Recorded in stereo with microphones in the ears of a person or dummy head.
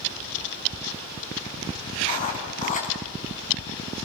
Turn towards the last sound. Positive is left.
turn(degrees=40)  # may be behind; listen again after turning